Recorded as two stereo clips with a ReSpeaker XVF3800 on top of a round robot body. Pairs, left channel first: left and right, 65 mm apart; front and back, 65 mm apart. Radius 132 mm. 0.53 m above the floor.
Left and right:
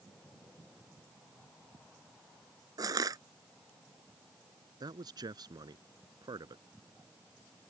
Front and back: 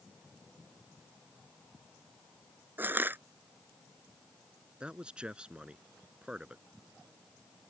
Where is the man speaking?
105° right.